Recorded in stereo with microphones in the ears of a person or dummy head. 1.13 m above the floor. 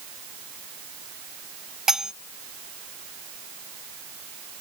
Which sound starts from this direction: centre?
Cutlery clinking, at 1.9 s.